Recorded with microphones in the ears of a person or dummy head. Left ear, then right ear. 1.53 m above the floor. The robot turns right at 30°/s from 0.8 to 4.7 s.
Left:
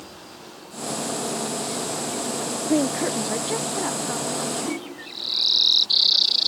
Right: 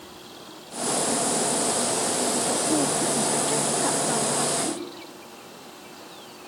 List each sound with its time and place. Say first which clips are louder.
2.7 s a woman speaking: left 1 dB; 145° left, 0.5 m; by 4.5 s 160° right, 0.5 m
4.6 s a whoosh: left 1 dB; 40° left (ahead or behind), 3.5 m